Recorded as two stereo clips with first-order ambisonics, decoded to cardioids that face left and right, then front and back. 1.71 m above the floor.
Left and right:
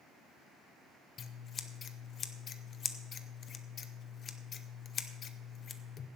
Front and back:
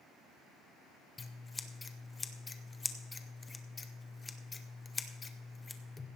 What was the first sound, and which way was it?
Scissors, 65° left.